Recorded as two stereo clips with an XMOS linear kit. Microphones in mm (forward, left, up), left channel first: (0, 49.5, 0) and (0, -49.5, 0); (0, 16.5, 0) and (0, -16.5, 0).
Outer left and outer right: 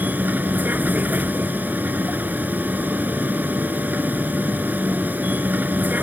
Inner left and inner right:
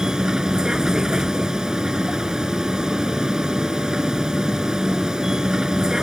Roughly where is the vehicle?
Centre.